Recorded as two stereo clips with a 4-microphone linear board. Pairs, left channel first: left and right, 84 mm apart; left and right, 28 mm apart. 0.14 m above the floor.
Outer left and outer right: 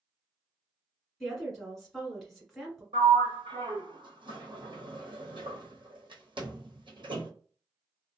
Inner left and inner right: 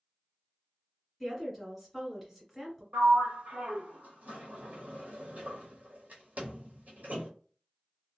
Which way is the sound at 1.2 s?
Centre (ahead or behind).